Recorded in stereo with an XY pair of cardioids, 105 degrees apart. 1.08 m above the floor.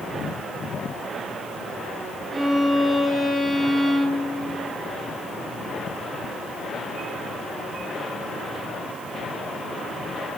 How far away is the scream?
I don't hear a scream.